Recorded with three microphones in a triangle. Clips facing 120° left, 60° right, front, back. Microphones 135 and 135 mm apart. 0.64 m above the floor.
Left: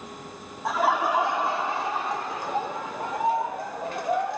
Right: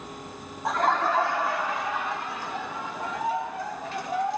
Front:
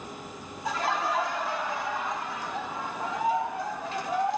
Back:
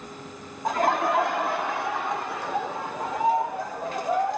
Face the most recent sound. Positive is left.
turn(degrees=145)